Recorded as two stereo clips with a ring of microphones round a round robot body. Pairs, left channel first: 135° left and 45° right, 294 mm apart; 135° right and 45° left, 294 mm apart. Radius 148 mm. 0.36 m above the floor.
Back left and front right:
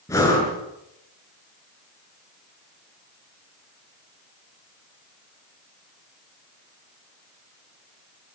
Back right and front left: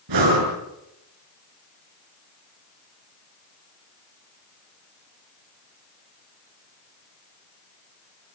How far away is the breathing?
About 6 m.